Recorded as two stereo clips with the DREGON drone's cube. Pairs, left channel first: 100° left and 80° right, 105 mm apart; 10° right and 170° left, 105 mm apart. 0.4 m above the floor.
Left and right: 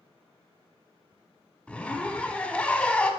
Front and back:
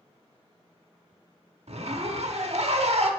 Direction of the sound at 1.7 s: Straight behind.